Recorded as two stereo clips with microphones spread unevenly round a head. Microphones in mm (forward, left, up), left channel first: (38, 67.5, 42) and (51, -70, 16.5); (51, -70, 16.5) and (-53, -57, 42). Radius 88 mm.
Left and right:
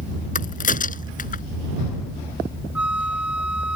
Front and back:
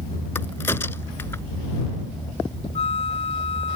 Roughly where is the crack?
Left.